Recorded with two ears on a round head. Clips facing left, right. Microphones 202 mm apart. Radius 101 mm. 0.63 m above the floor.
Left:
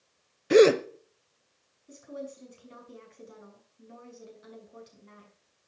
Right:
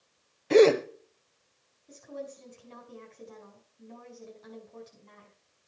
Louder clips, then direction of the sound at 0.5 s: Left 1 dB; 15° left (ahead or behind).